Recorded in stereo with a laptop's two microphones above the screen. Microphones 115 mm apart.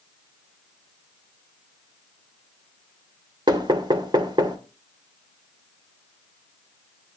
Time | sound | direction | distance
3.5 | knocking | 40° right (ahead or behind) | 2.5 m